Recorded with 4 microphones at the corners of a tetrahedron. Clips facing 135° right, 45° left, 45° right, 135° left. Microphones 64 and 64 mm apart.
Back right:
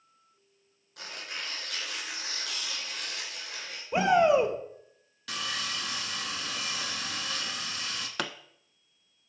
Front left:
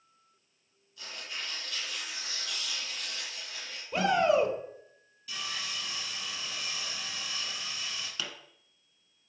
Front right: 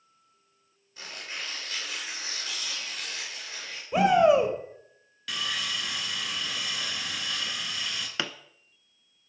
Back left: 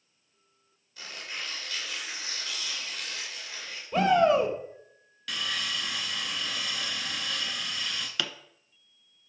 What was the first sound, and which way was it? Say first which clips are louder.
Tearing paper: back right 2 dB, even; 115° right.